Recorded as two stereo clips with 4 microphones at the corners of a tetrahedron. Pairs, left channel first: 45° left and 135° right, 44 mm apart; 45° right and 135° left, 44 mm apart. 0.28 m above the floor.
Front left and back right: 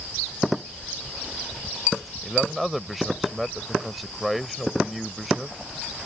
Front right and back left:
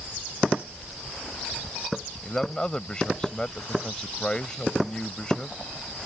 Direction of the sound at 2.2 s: 50° right.